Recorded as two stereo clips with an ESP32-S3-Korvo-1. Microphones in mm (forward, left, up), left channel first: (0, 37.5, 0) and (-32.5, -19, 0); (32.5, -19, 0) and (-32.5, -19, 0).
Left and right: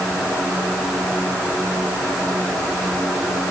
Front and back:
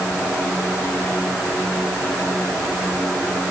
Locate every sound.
Only background noise.